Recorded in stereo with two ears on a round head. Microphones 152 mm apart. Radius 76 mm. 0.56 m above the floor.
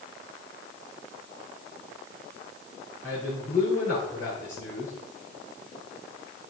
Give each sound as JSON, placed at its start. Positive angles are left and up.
{"t": 3.0, "sound": "a man speaking", "side_deg": 15, "distance_m": 4.0}